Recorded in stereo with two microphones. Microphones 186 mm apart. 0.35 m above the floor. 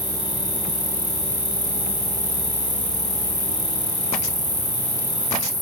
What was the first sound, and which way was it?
An insect, 30° right (ahead or behind).